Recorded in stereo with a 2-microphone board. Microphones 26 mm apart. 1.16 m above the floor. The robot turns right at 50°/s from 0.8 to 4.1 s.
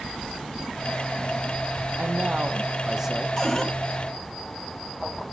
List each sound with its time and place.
2.0 s a man speaking: 70° right, 0.8 m; by 3.3 s 10° right, 0.8 m
3.4 s a cupboard door: 15° left (ahead or behind), 2.5 m; by 3.7 s centre (ahead or behind), 2.5 m